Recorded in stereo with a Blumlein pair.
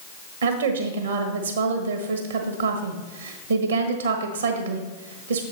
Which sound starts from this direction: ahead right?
A woman speaking, at 0.4 s.